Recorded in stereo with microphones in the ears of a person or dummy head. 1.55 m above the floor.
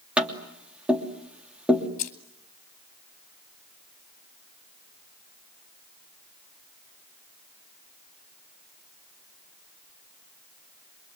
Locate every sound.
0.2 s tapping: 5° right (ahead or behind), 3 m
2.0 s keys jangling: 45° left (ahead or behind), 3 m